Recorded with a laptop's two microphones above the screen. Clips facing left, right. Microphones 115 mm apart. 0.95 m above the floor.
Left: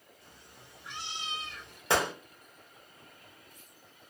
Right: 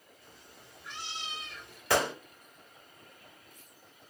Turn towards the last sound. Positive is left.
turn(degrees=20)  # may be behind; listen again after turning